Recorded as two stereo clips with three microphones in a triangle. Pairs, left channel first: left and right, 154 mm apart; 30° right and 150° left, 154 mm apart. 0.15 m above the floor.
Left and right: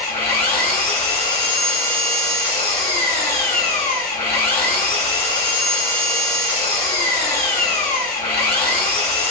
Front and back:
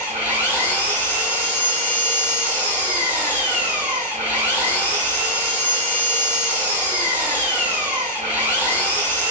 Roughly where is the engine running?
Behind right.